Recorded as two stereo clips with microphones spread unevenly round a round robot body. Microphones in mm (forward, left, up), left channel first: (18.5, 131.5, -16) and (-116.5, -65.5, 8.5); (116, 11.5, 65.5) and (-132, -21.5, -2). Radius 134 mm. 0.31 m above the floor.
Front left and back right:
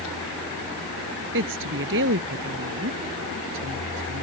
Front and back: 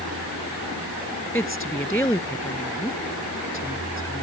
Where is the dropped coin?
I don't hear a dropped coin.